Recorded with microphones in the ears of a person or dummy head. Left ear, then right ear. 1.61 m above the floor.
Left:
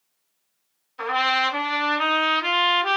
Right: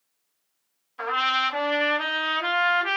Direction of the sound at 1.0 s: 10° right (ahead or behind).